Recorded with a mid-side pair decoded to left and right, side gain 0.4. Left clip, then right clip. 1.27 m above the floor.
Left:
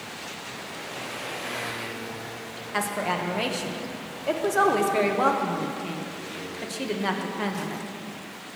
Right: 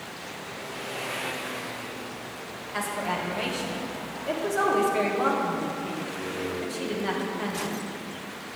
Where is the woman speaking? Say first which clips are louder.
Left 2 dB; 45° left, 1.3 m.